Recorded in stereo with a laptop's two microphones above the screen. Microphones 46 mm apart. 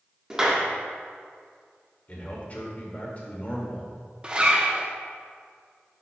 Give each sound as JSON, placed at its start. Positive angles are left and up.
{"t": 0.3, "sound": "a clap", "side_deg": -15, "distance_m": 1.4}
{"t": 2.1, "sound": "a man speaking", "side_deg": 35, "distance_m": 1.9}
{"t": 4.2, "sound": "a zipper", "side_deg": -20, "distance_m": 0.8}